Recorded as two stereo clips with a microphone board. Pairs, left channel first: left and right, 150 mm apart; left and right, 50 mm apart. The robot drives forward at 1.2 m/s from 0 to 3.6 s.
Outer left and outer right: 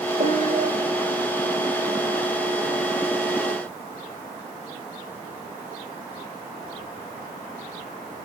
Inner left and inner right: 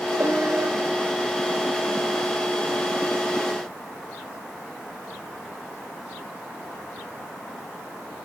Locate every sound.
0.2 s a piano: 55° right (ahead or behind), 2.5 m; by 0.7 s 45° right (ahead or behind), 2.5 m